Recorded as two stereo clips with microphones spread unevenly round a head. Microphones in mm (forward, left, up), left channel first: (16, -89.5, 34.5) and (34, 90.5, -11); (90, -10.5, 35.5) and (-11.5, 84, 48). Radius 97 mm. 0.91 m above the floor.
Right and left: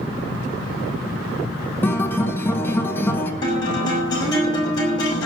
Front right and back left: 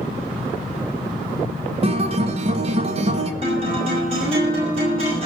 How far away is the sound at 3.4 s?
About 5.5 m.